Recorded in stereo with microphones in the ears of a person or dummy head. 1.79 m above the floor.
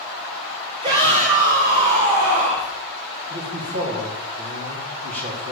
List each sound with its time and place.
0.8 s a shout: 35° right (ahead or behind), 1.7 m; by 2.7 s 50° right (ahead or behind), 2.5 m
3.3 s a man speaking: 50° right (ahead or behind), 3.5 m